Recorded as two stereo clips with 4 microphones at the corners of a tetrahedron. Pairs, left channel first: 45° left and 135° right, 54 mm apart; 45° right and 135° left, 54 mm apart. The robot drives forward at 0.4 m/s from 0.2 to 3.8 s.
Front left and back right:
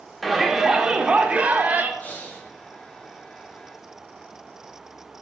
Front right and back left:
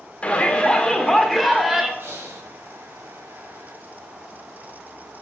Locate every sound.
0.2 s a shout: 50° right, 0.9 m; by 1.9 s 150° right, 0.9 m
2.0 s breathing: 100° left, 1.5 m; by 2.5 s 110° left, 1.6 m